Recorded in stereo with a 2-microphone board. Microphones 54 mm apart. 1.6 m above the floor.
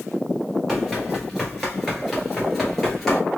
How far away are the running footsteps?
About 1.6 m.